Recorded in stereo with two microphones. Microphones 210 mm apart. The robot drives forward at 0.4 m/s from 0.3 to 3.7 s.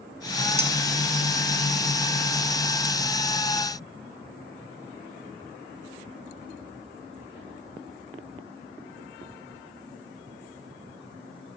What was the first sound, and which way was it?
A clink, 30° right (ahead or behind).